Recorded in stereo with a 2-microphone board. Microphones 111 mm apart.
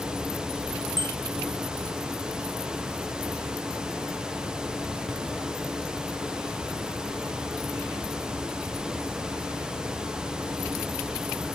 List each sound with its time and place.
1.0 s a bicycle bell: 45° right (ahead or behind)